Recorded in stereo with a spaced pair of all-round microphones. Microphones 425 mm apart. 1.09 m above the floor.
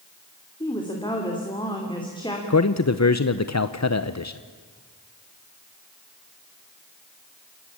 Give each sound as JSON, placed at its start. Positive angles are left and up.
{"t": 0.6, "sound": "a woman speaking", "side_deg": 10, "distance_m": 2.5}
{"t": 2.5, "sound": "a man speaking", "side_deg": 40, "distance_m": 0.7}